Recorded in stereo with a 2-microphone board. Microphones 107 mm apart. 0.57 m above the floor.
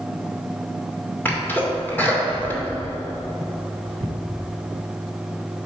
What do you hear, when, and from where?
1.2 s a sneeze: 20° left (ahead or behind), 2 m